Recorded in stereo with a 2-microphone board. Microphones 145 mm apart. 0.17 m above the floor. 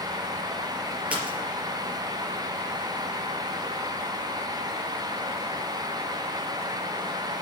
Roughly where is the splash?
Centre.